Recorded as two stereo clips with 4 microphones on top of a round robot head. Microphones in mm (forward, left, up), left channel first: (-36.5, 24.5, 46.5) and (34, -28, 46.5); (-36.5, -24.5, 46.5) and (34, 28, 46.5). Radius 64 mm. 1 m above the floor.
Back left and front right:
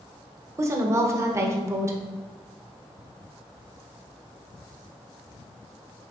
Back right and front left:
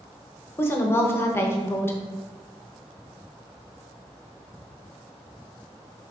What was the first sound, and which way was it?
A woman speaking, 85° right.